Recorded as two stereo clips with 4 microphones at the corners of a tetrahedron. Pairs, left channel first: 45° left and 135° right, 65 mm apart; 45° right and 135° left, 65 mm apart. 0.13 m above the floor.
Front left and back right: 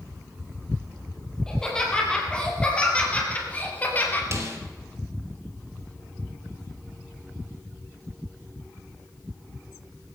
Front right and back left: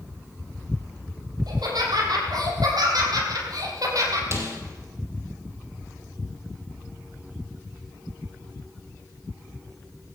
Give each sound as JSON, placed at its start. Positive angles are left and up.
{"t": 1.5, "sound": "laughter", "azimuth_deg": 125, "distance_m": 5.5}
{"t": 4.3, "sound": "a snare drum", "azimuth_deg": 180, "distance_m": 3.0}